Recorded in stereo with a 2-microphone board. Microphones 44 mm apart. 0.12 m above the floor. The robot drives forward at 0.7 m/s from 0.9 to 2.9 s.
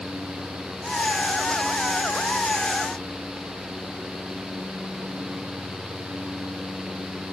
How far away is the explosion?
No explosion in this recording.